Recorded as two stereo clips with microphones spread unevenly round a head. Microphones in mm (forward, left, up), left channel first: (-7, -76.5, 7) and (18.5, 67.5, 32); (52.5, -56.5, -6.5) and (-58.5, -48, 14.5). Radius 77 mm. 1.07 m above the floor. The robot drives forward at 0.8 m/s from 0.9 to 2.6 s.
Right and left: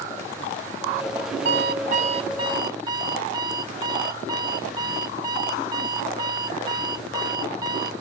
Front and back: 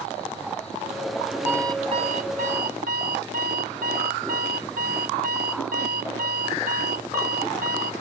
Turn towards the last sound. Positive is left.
turn(degrees=145)